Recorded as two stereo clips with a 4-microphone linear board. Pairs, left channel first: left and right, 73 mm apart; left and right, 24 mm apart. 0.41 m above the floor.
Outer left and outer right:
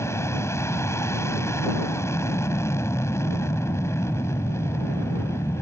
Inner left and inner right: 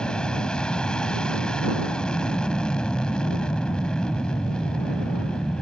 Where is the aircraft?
40° left (ahead or behind).